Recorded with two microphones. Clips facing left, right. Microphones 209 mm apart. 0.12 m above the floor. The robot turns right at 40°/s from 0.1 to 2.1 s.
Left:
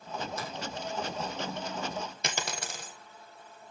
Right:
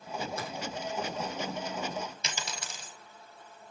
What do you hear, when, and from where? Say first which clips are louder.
0.4 s a finger snap: right 1 dB; 60° right (ahead or behind), 5 m
2.2 s a dropped coin: left 4 dB; 55° left (ahead or behind), 1.7 m